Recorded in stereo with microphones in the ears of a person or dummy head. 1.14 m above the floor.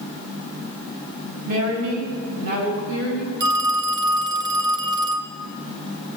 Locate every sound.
1.4 s a woman speaking: 75° right (ahead or behind), 6.5 m
3.4 s a phone ringing: 20° right (ahead or behind), 0.8 m